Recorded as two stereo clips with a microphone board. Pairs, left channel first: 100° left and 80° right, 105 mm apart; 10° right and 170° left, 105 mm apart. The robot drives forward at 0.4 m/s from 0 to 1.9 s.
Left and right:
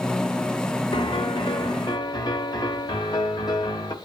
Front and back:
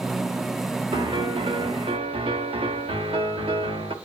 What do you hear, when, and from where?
0.9 s a piano: 130° left, 1.3 m; by 3.9 s 145° left, 1.6 m